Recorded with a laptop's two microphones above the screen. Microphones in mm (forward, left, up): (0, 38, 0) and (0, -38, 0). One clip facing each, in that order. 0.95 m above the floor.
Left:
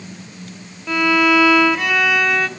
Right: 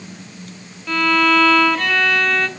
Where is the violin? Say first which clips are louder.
Left 1 dB; 10° left (ahead or behind), 0.6 m.